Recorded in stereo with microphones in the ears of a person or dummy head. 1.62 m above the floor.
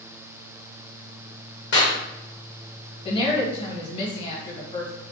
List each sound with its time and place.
1.7 s a clap: 55° left (ahead or behind), 1.2 m
3.0 s a woman speaking: 30° left (ahead or behind), 1.5 m